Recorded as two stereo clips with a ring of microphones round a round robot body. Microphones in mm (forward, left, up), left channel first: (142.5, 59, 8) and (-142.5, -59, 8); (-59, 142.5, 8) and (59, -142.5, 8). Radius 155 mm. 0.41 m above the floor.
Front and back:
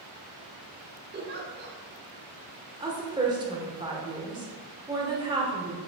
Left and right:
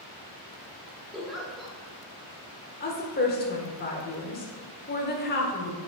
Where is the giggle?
155° right, 1.0 m.